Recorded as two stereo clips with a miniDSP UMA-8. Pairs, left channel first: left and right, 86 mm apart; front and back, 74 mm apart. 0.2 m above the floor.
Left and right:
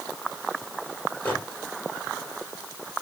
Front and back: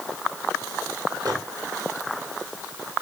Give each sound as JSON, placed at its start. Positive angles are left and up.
{"t": 1.2, "sound": "a microwave", "azimuth_deg": 160, "distance_m": 4.0}